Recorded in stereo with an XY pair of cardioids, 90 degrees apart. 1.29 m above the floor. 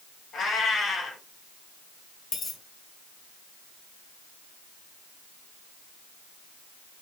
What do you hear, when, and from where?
0.3 s a cat meowing: 70° left, 3 m
2.3 s a dropped coin: 70° left, 2 m